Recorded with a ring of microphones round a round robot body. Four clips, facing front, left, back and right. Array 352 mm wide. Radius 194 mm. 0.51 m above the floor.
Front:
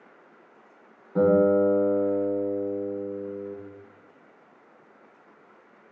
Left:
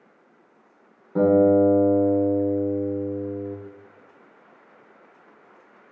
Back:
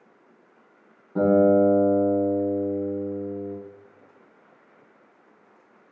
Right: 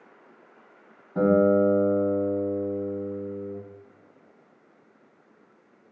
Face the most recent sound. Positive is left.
turn(degrees=85)